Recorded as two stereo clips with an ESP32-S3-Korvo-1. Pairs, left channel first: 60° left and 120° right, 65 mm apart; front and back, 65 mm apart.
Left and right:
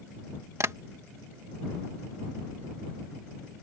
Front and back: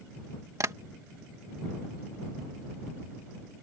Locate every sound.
0.6 s tapping: 155° right